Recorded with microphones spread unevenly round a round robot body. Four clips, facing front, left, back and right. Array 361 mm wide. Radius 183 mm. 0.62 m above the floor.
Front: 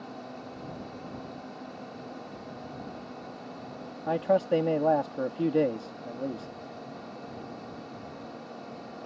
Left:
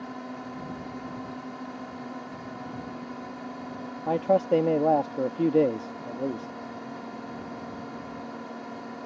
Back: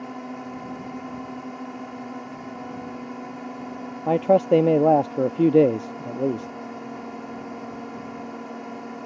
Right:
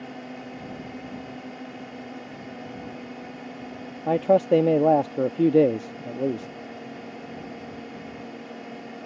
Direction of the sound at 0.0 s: Straight behind.